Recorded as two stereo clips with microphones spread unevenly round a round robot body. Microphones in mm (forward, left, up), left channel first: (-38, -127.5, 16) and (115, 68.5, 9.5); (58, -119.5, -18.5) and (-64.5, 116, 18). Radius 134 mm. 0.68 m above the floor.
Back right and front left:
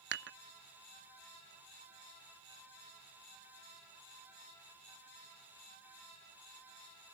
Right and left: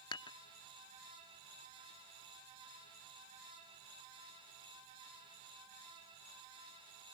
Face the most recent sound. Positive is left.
turn(degrees=5)